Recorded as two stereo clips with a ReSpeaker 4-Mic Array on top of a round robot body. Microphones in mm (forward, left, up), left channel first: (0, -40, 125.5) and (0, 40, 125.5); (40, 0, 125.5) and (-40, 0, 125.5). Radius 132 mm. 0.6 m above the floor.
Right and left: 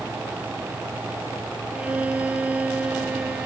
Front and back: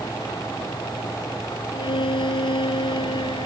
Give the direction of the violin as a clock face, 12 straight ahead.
11 o'clock.